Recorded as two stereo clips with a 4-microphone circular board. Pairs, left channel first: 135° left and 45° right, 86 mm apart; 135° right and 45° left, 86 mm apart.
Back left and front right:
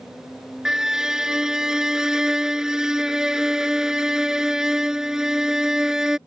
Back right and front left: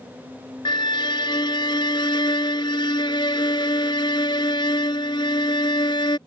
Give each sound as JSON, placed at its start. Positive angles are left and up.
{"t": 0.7, "sound": "a violin", "azimuth_deg": -130}